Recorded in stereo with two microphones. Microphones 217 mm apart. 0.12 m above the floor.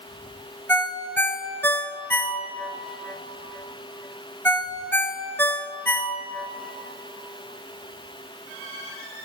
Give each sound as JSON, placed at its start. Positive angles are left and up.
{"t": 0.7, "sound": "a ringtone", "side_deg": 10, "distance_m": 0.6}